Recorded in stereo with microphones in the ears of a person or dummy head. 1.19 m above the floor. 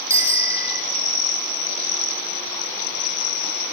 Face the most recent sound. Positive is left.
turn(degrees=-15)  # may be behind; listen again after turning